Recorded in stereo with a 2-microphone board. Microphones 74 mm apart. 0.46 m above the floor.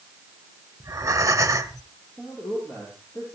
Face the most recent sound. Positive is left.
turn(degrees=20)  # may be behind; listen again after turning